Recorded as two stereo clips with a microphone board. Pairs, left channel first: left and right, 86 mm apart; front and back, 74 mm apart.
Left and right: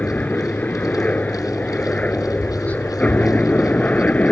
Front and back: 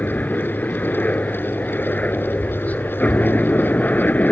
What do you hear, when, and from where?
0.0 s a helicopter: 40° left